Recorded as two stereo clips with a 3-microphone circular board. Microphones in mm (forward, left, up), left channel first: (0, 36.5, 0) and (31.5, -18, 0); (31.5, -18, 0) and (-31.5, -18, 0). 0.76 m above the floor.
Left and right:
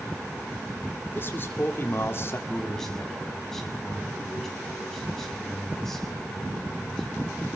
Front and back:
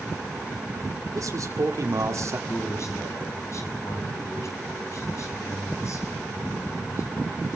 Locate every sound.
1.1 s a man speaking: 170° left, 2.5 m; by 2.4 s 160° left, 1.6 m
2.5 s a man speaking: 35° left, 7 m